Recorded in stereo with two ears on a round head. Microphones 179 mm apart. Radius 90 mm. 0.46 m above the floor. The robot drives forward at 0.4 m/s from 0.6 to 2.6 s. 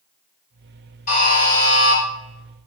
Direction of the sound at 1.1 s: 35° left (ahead or behind).